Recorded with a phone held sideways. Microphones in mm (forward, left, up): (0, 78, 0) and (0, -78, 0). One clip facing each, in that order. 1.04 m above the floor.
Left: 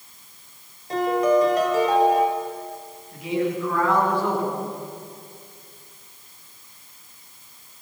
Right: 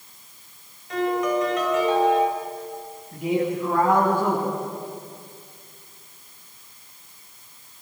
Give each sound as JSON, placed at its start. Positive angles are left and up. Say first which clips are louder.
{"t": 0.9, "sound": "a piano", "louder": "left 4 dB", "side_deg": 35, "distance_m": 6.0}
{"t": 3.1, "sound": "a man speaking", "louder": "right 1 dB", "side_deg": -45, "distance_m": 10.0}